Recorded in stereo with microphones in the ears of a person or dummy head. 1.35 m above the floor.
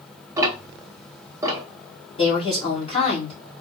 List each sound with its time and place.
0.4 s ticking: 25° right (ahead or behind), 0.8 m
2.2 s a woman speaking: 40° left (ahead or behind), 2.0 m